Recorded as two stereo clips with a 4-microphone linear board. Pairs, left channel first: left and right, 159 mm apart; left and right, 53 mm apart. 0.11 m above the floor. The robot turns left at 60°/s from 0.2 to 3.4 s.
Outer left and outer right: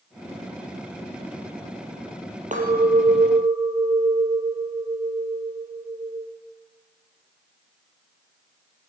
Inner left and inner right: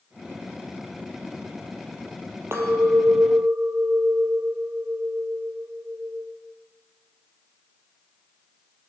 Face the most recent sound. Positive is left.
turn(degrees=-115)